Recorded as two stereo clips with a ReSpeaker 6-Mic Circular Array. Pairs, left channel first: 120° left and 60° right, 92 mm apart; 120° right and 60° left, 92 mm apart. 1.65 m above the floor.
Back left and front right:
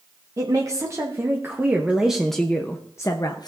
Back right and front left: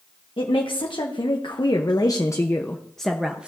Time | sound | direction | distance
0.4 | a woman speaking | 110° right | 1.4 m